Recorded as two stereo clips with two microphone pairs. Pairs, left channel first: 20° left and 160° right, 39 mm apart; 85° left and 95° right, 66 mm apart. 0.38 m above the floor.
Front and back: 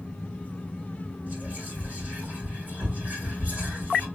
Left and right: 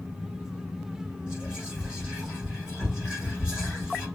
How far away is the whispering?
About 1.7 m.